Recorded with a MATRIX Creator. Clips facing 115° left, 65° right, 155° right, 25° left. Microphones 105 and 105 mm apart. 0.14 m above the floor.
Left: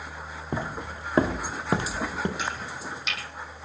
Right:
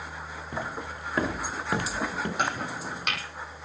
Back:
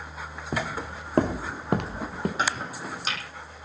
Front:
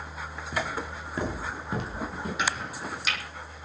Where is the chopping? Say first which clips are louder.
Right 3 dB, back 2 dB; 105° right, 2 m.